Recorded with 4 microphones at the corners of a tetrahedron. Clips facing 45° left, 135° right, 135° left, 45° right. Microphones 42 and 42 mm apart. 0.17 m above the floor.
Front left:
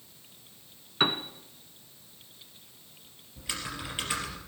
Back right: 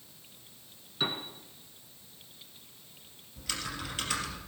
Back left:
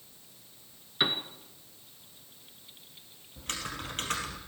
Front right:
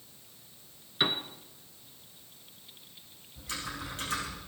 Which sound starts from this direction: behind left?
Typing on a keyboard, at 3.4 s.